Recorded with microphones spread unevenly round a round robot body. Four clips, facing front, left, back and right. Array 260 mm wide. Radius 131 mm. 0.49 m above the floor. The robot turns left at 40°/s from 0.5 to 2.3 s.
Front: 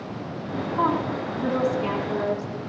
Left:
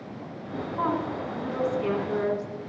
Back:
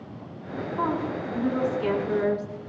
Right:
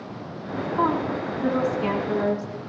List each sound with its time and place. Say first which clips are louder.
0.8 s a woman speaking: right 4 dB, front 3 dB; 40° right, 5 m; by 2.5 s 105° right, 5 m